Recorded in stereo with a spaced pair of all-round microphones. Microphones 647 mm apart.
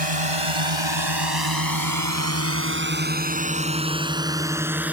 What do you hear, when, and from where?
0.0 s a drone: 60° right (ahead or behind); by 4.9 s centre (ahead or behind)